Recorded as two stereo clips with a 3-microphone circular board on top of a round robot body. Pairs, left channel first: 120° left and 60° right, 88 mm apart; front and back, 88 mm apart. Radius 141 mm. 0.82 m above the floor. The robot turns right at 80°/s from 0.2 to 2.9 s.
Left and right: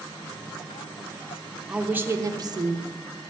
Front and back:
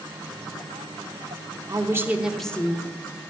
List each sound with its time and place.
1.7 s a woman speaking: 145° right, 1.2 m; by 3.0 s 45° right, 1.2 m